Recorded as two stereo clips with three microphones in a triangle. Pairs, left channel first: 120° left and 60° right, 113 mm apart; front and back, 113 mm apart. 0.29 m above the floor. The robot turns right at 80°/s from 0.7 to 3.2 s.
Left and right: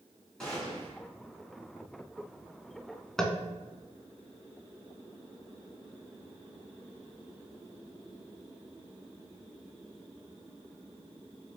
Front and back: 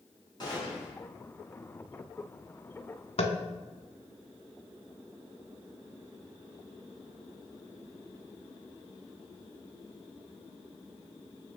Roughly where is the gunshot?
Ahead left.